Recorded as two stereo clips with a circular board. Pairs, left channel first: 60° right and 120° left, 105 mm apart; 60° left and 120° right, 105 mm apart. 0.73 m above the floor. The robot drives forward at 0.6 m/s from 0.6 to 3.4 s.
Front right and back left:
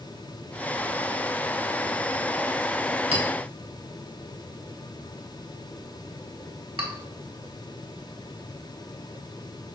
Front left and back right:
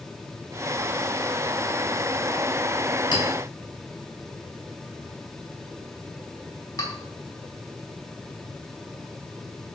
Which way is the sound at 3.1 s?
105° left.